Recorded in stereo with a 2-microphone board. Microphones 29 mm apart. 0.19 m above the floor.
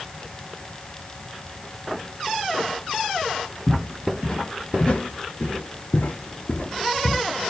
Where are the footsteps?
30° left (ahead or behind), 1.5 m; by 7.2 s 45° left (ahead or behind), 0.8 m.